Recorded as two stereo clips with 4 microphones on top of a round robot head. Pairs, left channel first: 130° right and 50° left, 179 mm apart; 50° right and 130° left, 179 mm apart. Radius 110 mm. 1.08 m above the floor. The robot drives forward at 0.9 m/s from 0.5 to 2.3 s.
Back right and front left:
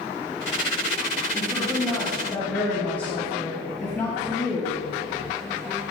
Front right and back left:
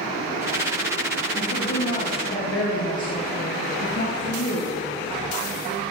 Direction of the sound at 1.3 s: 35° right.